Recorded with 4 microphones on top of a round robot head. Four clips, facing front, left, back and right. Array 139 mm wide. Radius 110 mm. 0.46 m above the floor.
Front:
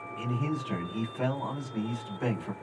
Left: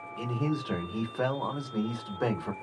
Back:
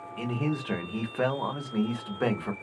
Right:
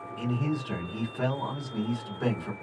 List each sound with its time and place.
0.2 s a man speaking: 150° left, 1.2 m